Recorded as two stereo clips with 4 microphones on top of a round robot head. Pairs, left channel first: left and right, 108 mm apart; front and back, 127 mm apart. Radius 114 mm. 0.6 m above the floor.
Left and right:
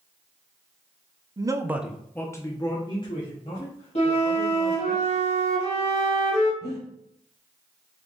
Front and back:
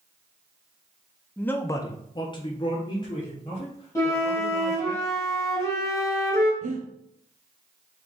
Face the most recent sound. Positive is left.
turn(degrees=155)